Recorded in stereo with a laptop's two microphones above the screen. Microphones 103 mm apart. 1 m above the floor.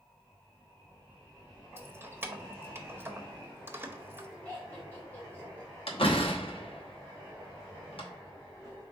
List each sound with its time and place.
1.8 s keys jangling: 25° right (ahead or behind), 0.7 m
4.5 s laughter: 15° left (ahead or behind), 2 m
5.9 s a door slam: 70° left (ahead or behind), 0.9 m